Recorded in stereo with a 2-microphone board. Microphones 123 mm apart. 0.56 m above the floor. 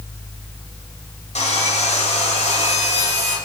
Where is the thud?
No thud in this recording.